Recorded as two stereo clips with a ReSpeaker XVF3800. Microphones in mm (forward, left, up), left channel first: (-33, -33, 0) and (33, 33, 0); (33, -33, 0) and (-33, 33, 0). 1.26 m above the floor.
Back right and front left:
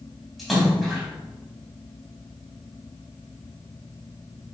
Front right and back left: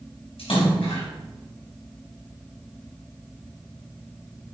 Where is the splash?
45° right, 4.5 m.